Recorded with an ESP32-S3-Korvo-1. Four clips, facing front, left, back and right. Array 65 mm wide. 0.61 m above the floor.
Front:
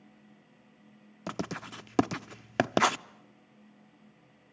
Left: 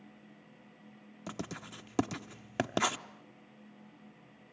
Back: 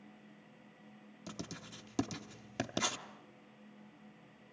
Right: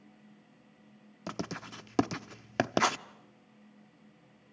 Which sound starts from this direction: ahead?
Writing, at 1.3 s.